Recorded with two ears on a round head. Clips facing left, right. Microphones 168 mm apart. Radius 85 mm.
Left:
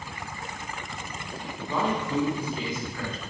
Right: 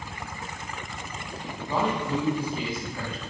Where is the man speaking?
30° right (ahead or behind), 3 m.